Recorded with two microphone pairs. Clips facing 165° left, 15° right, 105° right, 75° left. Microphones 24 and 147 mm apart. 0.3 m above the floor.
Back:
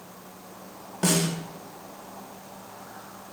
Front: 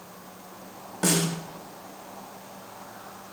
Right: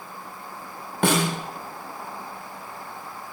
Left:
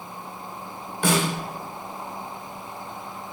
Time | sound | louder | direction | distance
1.0 | a snare drum | even, right 1 dB | 110° right | 0.7 m